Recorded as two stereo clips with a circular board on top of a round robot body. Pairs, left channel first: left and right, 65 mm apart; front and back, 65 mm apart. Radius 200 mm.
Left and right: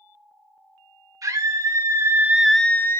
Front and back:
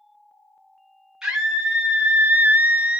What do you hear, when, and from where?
1.2 s a scream: 100° right, 2 m; by 3.0 s 110° left, 1.2 m